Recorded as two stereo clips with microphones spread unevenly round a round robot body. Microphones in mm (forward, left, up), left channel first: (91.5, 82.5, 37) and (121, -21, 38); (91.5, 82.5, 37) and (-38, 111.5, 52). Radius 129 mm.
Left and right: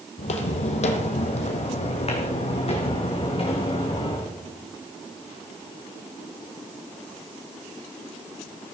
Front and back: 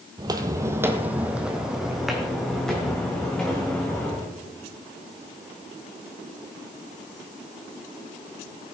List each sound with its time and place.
0.2 s footsteps: 120° left, 1.1 m; by 4.3 s 70° left, 3.5 m